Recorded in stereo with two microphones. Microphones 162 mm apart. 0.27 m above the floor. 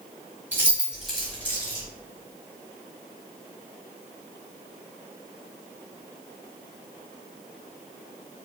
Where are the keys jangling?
15° right (ahead or behind), 1.3 m; by 1.9 s 25° left (ahead or behind), 1.3 m.